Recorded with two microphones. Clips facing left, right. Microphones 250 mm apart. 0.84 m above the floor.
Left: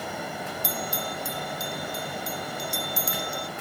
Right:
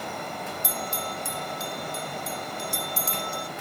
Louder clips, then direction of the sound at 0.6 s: Left 1 dB; 60° right (ahead or behind).